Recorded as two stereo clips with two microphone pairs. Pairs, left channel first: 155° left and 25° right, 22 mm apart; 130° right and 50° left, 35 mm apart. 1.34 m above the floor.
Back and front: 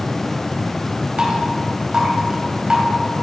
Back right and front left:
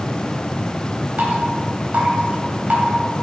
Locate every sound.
1.2 s dripping: 20° left, 3 m